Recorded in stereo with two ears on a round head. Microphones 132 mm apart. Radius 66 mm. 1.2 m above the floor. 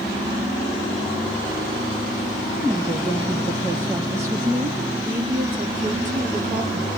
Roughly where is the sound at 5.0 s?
Right.